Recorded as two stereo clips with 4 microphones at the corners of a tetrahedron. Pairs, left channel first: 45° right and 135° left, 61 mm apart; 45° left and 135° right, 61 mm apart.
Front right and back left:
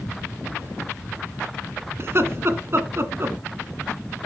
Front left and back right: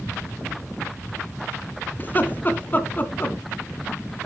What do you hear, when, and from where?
2.0 s laughter: 100° left, 1.9 m